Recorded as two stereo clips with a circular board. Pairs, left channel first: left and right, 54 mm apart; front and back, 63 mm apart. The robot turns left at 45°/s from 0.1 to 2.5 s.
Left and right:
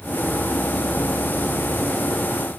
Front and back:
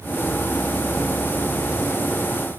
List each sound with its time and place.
Only background noise.